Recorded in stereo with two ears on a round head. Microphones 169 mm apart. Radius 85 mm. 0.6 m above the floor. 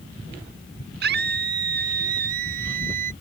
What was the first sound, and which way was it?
A scream, 60° right (ahead or behind).